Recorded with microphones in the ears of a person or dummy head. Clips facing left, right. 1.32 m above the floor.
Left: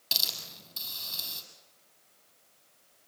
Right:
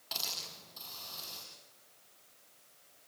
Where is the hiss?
45° left (ahead or behind), 6.5 m.